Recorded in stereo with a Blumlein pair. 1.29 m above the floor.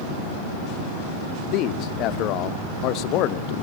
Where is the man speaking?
40° left, 1.1 m.